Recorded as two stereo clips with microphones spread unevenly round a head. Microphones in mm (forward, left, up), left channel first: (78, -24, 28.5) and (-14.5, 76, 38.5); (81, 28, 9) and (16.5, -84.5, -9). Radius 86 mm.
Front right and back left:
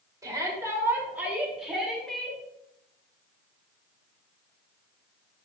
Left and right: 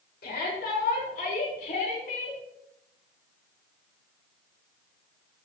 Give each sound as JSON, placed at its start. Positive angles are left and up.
{"t": 0.2, "sound": "a shout", "azimuth_deg": 65, "distance_m": 4.0}